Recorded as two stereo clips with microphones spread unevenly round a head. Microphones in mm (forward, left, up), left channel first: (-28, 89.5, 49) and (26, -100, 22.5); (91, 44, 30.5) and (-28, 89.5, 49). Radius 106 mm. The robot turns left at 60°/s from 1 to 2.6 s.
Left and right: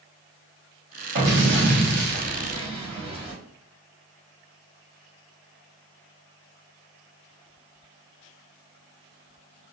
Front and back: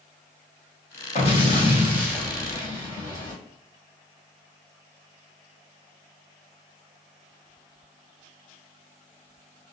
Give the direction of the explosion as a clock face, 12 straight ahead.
1 o'clock.